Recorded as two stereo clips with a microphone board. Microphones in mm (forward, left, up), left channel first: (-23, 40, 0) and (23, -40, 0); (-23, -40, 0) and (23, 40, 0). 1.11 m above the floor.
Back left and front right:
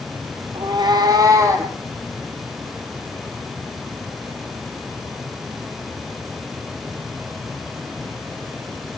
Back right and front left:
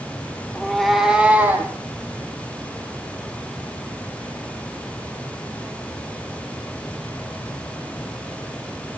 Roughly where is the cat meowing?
Ahead right.